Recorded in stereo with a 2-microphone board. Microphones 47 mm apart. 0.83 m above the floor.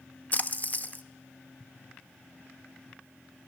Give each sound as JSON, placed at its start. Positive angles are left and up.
{"t": 0.3, "sound": "a splash", "side_deg": 35, "distance_m": 0.6}